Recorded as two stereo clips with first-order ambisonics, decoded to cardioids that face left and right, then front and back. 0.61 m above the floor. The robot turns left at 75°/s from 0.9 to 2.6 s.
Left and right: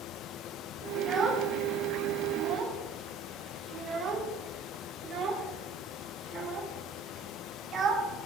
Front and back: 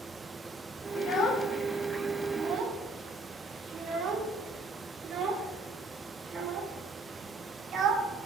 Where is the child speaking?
15° right, 0.6 m; by 8.1 s 135° right, 0.6 m.